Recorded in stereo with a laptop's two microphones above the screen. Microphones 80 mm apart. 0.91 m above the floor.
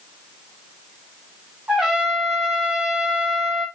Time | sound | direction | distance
1.7 | a trumpet | 10° right (ahead or behind) | 1.3 m